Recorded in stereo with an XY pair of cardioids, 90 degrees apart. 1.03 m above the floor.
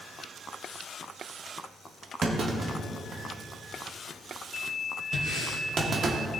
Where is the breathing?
65° left, 1.3 m.